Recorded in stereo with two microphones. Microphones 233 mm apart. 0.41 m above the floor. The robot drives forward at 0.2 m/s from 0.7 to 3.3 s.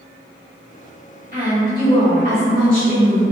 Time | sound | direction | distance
1.3 | a woman speaking | 35° right (ahead or behind) | 1.3 m